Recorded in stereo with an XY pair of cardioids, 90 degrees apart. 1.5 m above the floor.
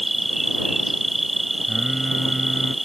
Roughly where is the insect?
Ahead.